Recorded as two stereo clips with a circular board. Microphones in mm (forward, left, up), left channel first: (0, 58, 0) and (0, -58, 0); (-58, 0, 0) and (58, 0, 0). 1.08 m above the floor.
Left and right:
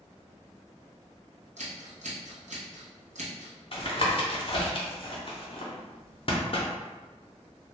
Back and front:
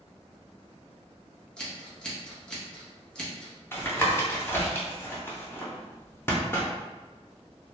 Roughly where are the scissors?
Right.